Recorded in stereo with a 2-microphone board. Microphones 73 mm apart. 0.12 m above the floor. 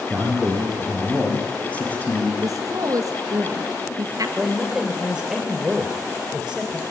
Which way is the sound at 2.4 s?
50° right (ahead or behind).